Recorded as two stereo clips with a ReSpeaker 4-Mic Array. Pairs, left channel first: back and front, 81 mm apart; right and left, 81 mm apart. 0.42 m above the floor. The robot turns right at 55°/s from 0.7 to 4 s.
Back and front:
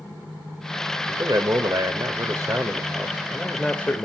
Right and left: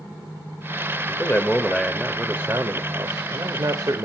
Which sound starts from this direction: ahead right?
A man speaking, at 1.1 s.